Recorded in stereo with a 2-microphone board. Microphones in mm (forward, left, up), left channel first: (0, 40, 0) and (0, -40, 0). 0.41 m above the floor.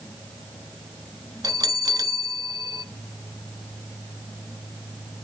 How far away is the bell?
About 0.5 m.